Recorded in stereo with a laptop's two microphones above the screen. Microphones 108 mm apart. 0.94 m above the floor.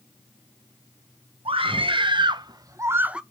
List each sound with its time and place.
1.4 s a scream: 65° right (ahead or behind), 1.6 m; by 3.2 s 10° right (ahead or behind), 0.7 m